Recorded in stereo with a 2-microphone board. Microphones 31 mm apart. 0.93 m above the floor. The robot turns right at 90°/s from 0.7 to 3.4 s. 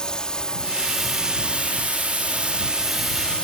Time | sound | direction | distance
0.0 | a drone | 150° left | ?